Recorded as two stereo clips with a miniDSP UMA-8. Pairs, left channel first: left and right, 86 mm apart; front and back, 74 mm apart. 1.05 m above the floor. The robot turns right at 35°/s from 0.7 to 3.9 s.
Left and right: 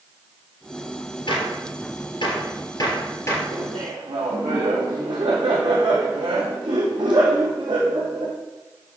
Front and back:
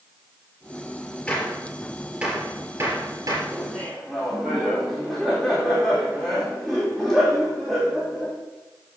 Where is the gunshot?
75° left, 3 m; by 3.4 s 150° left, 3 m.